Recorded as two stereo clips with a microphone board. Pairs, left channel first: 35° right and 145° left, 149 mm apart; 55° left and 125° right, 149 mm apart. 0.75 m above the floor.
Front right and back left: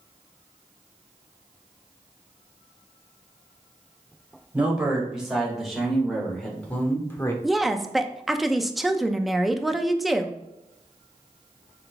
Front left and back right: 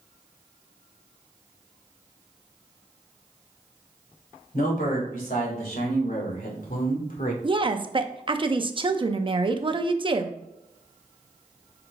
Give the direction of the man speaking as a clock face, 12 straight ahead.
10 o'clock.